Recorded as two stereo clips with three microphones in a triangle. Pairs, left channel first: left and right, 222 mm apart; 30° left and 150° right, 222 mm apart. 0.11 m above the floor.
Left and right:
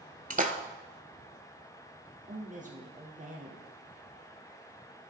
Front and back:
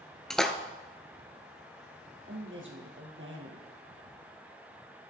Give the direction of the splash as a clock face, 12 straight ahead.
2 o'clock.